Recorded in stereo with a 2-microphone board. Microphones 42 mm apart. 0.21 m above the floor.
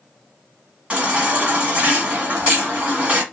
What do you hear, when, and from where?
0.9 s a baby crying: 25° right (ahead or behind), 1.2 m